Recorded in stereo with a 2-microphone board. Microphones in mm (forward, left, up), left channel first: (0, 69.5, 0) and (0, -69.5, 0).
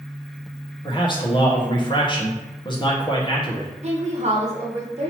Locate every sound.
0.8 s a man speaking: 35° left (ahead or behind), 1.3 m
3.8 s a woman speaking: 50° right (ahead or behind), 1.2 m